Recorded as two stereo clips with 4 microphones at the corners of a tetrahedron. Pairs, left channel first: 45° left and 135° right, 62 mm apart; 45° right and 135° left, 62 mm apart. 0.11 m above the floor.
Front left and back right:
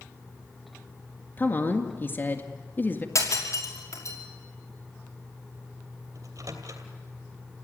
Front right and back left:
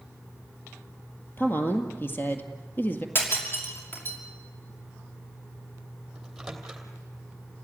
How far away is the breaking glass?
About 6 m.